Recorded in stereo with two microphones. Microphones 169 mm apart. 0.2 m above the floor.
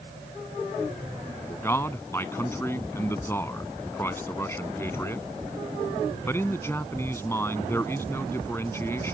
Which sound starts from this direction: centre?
A man speaking, at 1.5 s.